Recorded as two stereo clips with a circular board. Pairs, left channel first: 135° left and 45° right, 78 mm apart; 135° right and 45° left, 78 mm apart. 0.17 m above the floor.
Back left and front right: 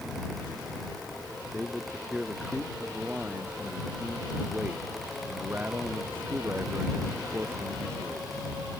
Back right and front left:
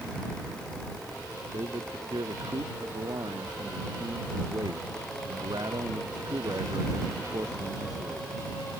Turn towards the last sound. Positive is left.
turn(degrees=10)